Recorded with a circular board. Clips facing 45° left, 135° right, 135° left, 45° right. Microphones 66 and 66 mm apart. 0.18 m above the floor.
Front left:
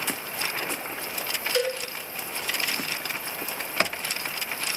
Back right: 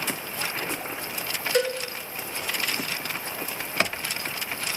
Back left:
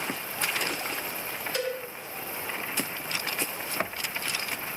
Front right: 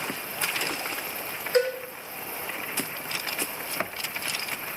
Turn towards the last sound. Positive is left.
turn(degrees=-85)